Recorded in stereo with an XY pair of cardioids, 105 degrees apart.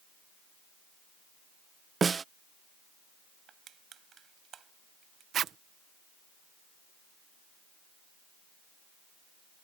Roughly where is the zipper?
Ahead right.